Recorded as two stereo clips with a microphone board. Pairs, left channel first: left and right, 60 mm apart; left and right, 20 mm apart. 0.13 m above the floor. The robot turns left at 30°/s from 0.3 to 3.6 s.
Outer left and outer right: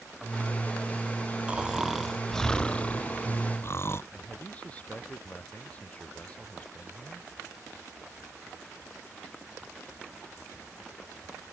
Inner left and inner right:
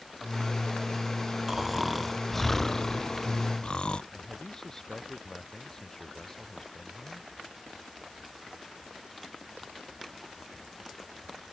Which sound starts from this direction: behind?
Snoring, at 1.5 s.